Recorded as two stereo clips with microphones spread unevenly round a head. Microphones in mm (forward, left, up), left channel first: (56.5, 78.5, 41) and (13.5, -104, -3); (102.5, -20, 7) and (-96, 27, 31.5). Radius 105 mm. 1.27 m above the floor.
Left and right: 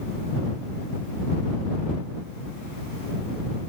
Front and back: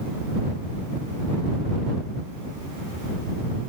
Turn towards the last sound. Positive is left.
No sound to turn to.